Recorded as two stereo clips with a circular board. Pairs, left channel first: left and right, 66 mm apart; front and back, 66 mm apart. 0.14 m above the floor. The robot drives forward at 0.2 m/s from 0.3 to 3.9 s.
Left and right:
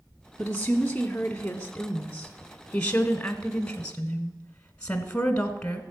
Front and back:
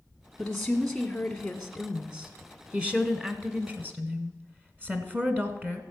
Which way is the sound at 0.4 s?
60° left.